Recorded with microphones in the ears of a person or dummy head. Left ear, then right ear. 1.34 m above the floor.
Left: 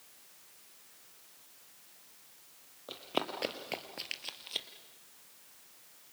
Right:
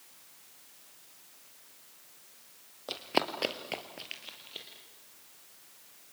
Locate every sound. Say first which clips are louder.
2.9 s running footsteps: right 5 dB; 35° right (ahead or behind), 2 m; by 4.7 s 45° left (ahead or behind), 2 m